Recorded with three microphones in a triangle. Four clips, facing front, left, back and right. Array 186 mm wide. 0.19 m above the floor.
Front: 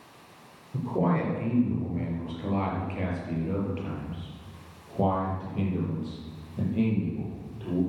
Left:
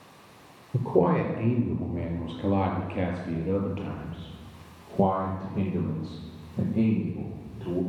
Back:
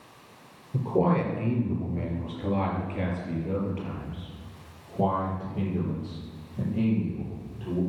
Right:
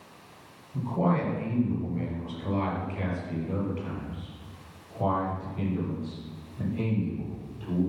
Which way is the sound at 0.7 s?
100° left.